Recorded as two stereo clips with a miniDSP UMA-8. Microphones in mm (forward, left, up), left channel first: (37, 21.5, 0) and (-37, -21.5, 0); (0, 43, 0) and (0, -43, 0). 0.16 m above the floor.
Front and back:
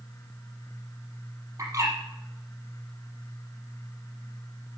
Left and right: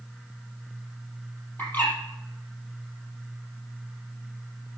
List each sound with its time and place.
1.6 s a bird: 160° left, 5.5 m